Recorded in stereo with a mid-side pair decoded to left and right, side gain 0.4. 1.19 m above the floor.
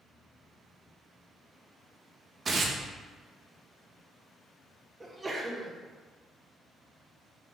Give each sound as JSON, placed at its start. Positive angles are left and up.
{"t": 2.5, "sound": "tearing paper", "azimuth_deg": -45, "distance_m": 0.7}
{"t": 5.0, "sound": "a sneeze", "azimuth_deg": -25, "distance_m": 1.2}